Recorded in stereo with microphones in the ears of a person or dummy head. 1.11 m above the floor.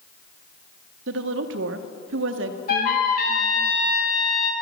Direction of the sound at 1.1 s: 65° right (ahead or behind).